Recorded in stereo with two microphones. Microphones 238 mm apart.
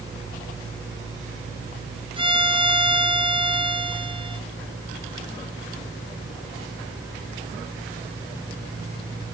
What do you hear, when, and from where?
2.2 s a violin: 20° right (ahead or behind), 0.9 m